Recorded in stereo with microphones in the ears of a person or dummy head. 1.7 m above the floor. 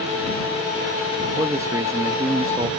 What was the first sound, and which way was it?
A man speaking, 20° right (ahead or behind).